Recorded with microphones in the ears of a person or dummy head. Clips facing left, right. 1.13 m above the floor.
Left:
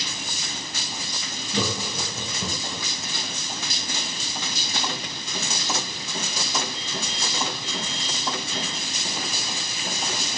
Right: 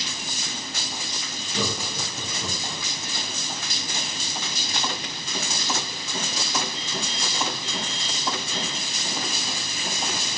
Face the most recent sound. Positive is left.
turn(degrees=50)  # may be behind; listen again after turning